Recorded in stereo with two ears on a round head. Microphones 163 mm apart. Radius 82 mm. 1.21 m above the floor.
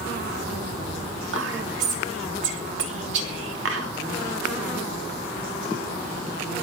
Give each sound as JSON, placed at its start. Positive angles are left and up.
{"t": 1.3, "sound": "whispering", "side_deg": -75, "distance_m": 2.5}